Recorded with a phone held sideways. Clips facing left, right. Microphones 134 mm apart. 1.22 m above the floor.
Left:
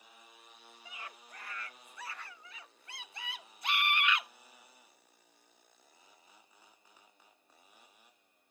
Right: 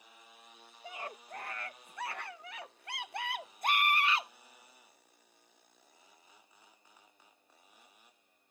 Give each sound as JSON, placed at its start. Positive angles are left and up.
{"t": 0.8, "sound": "a scream", "side_deg": -45}